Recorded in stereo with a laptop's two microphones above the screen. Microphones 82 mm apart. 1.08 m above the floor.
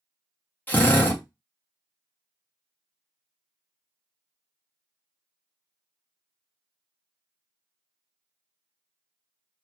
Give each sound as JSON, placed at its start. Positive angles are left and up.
{"t": 0.7, "sound": "a drill", "side_deg": 20, "distance_m": 0.8}